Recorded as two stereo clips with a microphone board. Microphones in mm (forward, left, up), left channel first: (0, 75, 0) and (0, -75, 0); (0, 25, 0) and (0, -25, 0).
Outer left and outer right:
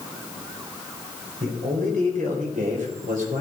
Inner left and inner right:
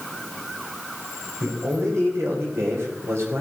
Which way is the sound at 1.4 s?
60° right (ahead or behind).